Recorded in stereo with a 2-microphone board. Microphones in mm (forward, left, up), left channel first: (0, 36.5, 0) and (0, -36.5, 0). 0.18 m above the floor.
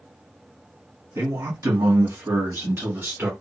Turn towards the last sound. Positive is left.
turn(degrees=-30)  # may be behind; listen again after turning